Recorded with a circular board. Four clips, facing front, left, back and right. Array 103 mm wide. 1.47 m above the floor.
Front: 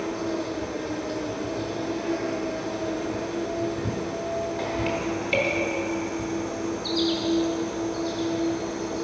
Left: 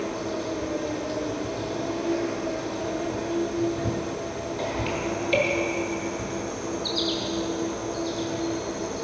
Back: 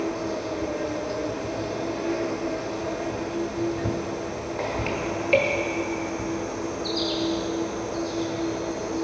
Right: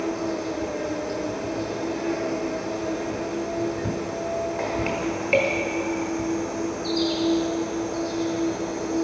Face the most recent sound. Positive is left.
turn(degrees=-110)